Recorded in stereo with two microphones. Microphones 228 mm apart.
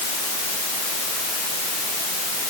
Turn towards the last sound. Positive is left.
No sound to turn to.